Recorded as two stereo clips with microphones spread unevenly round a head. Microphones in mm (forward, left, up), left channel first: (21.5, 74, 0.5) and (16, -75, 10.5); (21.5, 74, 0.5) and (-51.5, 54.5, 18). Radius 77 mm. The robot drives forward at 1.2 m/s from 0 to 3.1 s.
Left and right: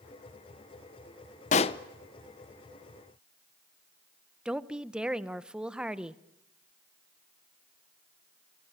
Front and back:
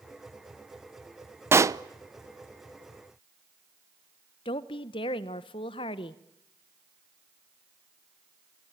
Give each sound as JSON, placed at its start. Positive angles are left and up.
{"t": 1.5, "sound": "a pop", "azimuth_deg": 135, "distance_m": 0.7}
{"t": 4.5, "sound": "a woman speaking", "azimuth_deg": -10, "distance_m": 0.9}